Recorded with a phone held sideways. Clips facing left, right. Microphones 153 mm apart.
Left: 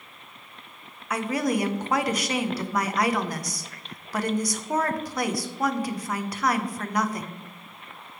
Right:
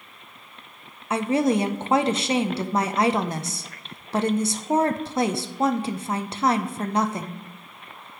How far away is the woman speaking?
About 0.6 m.